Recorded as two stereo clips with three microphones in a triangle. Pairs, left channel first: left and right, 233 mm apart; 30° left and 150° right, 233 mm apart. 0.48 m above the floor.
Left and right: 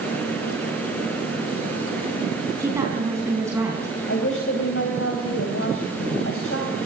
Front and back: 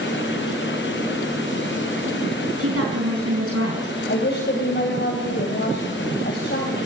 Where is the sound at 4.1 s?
70° left, 2.5 m.